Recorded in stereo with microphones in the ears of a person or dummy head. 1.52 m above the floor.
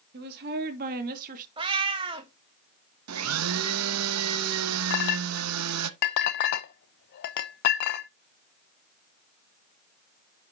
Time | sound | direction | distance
0.1 | a woman speaking | 55° right (ahead or behind) | 2 m
1.6 | a cat meowing | 25° right (ahead or behind) | 1.0 m
3.1 | a blender | 85° right | 0.8 m
4.9 | a clink | 55° left (ahead or behind) | 0.9 m